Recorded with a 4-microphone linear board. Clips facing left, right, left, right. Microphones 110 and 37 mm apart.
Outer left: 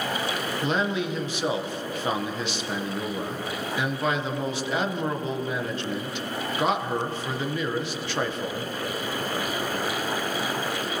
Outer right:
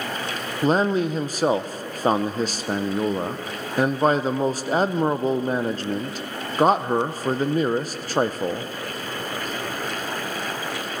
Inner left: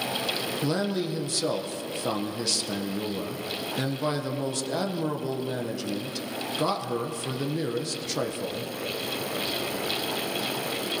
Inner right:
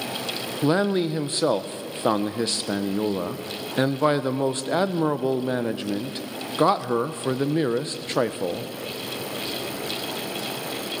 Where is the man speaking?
40° right (ahead or behind), 0.6 m.